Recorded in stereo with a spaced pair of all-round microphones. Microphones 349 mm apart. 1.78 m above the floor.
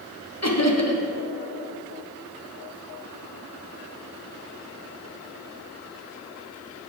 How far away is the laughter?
About 1.2 m.